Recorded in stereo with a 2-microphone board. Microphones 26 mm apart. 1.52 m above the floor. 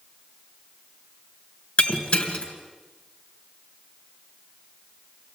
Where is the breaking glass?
50° left (ahead or behind), 2.5 m.